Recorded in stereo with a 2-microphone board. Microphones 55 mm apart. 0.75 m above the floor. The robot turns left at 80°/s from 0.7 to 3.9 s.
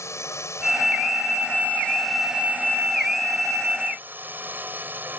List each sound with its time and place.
0.0 s a drone: 115° left; by 5.2 s 140° right